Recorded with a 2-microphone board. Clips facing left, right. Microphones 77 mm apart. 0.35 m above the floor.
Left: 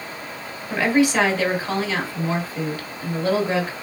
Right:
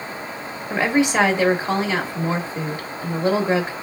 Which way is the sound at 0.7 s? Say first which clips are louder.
Even; 25° right (ahead or behind).